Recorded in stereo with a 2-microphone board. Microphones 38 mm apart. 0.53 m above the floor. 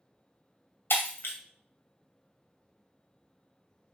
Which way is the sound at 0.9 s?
85° left.